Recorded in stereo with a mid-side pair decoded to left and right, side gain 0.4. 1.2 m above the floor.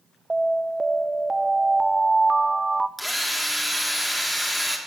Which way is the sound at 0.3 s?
20° right.